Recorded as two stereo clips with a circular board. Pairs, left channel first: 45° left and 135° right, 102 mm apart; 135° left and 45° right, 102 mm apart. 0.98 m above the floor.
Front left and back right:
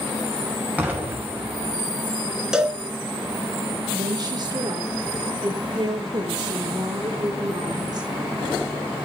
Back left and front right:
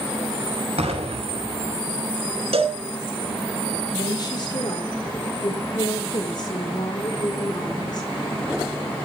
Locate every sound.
0.8 s an explosion: 60° right, 6 m
2.5 s a cowbell: 50° right, 2.5 m
3.9 s a woman speaking: 175° left, 3 m